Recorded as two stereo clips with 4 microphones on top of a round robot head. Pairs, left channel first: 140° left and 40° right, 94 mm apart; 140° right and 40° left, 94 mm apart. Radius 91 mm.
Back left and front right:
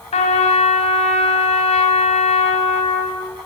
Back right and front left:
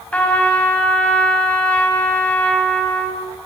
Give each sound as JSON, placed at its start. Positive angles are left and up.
{"t": 0.1, "sound": "a trumpet", "azimuth_deg": 145, "distance_m": 4.5}